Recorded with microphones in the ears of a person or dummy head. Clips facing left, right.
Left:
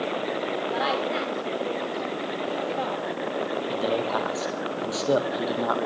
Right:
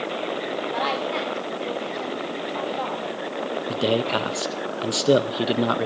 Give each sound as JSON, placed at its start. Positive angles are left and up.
{"t": 0.7, "sound": "a woman speaking", "side_deg": 5, "distance_m": 5.0}
{"t": 3.7, "sound": "a man speaking", "side_deg": -35, "distance_m": 1.7}